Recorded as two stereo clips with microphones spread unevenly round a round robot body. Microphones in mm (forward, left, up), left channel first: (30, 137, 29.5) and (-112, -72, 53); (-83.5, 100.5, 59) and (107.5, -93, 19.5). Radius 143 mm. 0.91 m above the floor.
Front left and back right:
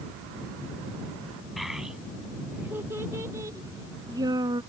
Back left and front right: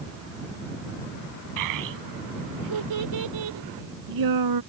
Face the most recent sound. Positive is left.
turn(degrees=-50)